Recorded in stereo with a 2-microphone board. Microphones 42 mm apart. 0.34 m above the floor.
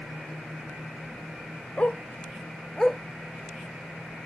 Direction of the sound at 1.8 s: 35° left (ahead or behind).